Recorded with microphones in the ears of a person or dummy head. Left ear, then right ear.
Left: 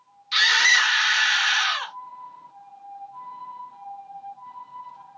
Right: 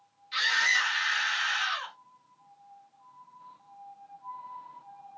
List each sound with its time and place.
0.3 s a scream: 45° left (ahead or behind), 1.6 m